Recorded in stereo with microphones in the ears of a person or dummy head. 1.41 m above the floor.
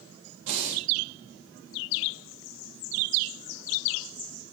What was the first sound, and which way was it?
Breathing, 65° right (ahead or behind).